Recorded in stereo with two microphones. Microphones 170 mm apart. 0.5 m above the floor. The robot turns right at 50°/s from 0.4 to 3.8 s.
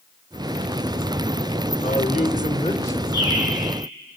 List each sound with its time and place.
1.8 s a man speaking: 100° left, 2 m; by 3.0 s 160° left, 2 m
3.1 s a bird: 80° left, 8.5 m; by 3.5 s 65° left (ahead or behind), 8.5 m